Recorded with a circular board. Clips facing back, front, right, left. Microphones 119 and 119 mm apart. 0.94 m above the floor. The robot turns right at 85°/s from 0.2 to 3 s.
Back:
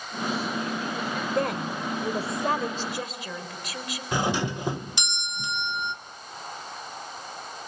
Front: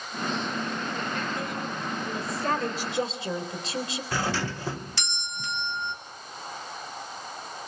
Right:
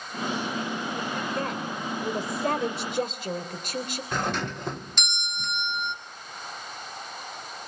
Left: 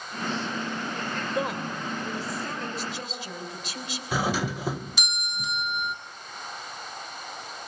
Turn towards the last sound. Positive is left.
turn(degrees=160)